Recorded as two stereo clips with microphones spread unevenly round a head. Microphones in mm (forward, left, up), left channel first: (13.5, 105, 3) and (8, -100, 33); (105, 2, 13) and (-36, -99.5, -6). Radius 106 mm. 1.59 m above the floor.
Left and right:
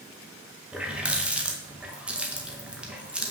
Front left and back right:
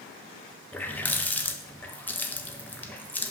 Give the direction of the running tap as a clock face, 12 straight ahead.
1 o'clock.